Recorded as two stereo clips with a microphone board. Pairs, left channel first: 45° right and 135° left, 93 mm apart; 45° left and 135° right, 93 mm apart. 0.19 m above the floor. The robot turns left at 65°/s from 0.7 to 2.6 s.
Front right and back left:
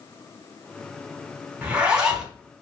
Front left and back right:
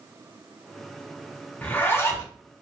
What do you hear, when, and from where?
1.6 s a zipper: 85° left, 1.3 m; by 2.3 s 40° left, 1.3 m